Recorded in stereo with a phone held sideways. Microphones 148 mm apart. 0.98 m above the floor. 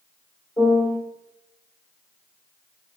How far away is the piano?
About 1.7 m.